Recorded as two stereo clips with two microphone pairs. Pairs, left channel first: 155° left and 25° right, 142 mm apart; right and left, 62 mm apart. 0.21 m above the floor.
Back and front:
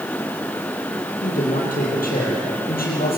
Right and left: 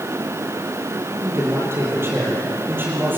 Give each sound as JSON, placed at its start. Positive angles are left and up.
{"t": 1.2, "sound": "a man speaking", "azimuth_deg": 130, "distance_m": 7.5}